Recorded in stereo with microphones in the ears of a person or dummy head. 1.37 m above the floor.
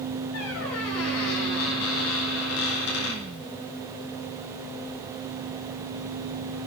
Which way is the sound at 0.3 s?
75° left (ahead or behind).